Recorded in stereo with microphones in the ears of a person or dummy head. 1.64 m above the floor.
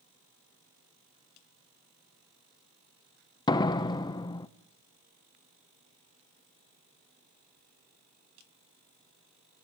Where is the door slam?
20° left (ahead or behind), 0.9 m.